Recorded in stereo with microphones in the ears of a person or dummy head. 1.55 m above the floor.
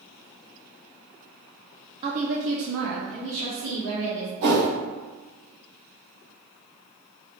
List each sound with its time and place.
2.0 s a woman speaking: 25° right (ahead or behind), 0.6 m; by 4.3 s 65° right (ahead or behind), 2 m
4.4 s a whoosh: 55° right (ahead or behind), 1.1 m